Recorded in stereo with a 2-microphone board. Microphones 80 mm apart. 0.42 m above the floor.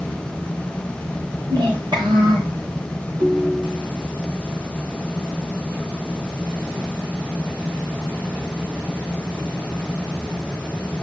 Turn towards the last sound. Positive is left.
turn(degrees=-60)  # may be behind; listen again after turning